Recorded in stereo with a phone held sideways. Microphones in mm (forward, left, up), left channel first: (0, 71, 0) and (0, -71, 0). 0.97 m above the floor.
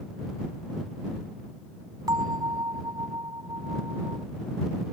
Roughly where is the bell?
Right.